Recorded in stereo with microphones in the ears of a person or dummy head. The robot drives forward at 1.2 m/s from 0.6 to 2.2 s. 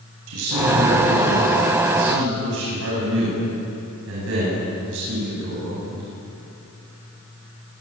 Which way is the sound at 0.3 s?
80° right.